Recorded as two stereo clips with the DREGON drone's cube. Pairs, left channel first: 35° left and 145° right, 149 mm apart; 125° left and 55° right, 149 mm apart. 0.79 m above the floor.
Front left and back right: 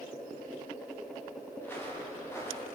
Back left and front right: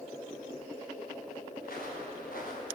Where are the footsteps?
110° left, 7 m; by 2.6 s 105° left, 7.5 m.